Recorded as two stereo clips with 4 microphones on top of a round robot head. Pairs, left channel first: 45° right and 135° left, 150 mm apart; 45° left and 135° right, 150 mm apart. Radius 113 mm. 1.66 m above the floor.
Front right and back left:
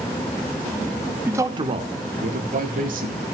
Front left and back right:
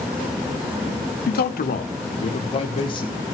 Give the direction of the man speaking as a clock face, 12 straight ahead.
10 o'clock.